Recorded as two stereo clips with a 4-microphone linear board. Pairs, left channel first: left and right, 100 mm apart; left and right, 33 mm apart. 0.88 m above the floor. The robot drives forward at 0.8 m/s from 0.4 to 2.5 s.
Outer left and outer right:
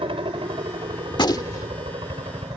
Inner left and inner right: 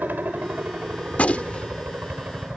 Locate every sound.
0.0 s a helicopter: 65° right (ahead or behind); by 2.6 s 60° right (ahead or behind)
1.1 s a gunshot: 50° left (ahead or behind); by 1.8 s 35° left (ahead or behind)